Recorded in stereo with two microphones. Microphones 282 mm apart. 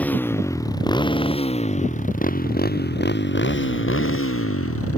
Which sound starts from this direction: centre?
A motorcycle, at 0.0 s.